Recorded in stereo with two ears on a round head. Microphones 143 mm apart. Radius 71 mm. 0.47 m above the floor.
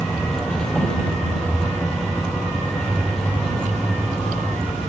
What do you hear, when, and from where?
0.0 s a vehicle: 5° left (ahead or behind)